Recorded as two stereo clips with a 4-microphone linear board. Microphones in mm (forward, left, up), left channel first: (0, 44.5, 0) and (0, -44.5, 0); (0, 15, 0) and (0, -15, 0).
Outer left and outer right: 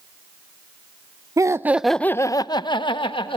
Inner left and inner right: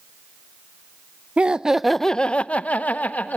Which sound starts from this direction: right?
Laughter, at 1.4 s.